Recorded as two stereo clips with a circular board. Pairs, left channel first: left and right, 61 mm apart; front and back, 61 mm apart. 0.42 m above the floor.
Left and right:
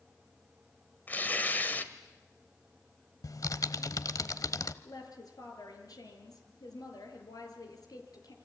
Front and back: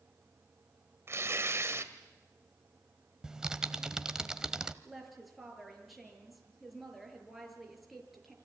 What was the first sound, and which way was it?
Tearing paper, 145° left.